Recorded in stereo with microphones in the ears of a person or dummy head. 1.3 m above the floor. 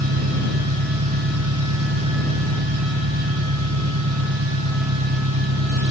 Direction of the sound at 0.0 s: 80° right.